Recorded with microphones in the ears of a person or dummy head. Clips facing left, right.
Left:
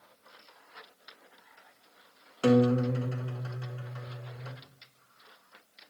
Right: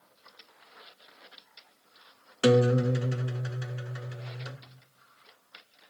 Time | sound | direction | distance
2.4 | a guitar | 20° right (ahead or behind) | 0.9 m